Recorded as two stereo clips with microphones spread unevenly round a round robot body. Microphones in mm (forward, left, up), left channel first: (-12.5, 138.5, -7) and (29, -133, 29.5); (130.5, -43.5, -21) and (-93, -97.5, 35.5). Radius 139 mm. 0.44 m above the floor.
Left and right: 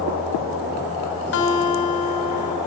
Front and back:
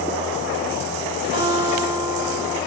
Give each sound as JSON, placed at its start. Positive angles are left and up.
{"t": 1.3, "sound": "a guitar", "azimuth_deg": 110, "distance_m": 1.2}